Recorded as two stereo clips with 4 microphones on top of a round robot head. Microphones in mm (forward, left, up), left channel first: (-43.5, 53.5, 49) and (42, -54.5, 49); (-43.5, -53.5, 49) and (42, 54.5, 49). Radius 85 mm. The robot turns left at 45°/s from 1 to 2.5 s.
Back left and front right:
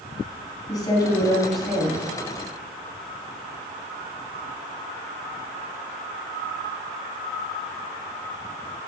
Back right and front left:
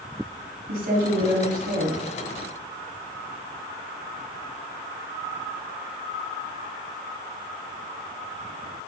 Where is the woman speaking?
65° left, 4 m; by 2.0 s 15° left, 4 m.